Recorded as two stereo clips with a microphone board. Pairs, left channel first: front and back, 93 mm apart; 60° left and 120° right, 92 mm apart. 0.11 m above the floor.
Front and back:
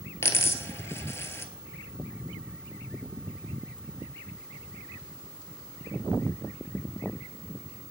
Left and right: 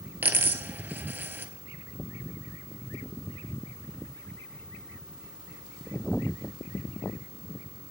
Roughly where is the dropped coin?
Ahead right.